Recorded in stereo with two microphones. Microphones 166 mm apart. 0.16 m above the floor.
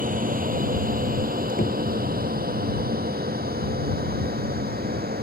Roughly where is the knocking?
Left.